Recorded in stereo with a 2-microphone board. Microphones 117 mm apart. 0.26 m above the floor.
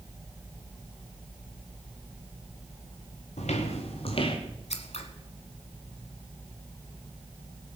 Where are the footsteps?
70° left (ahead or behind), 2 m; by 4.4 s 45° left (ahead or behind), 2 m.